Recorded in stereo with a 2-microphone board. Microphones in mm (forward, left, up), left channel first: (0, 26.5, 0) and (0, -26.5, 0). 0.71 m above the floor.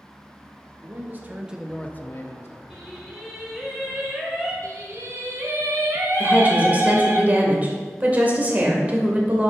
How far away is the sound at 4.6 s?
About 1.5 m.